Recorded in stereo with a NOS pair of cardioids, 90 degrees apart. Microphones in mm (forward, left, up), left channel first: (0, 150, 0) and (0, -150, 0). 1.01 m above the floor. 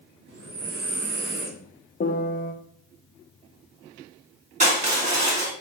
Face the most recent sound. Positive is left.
turn(degrees=-25)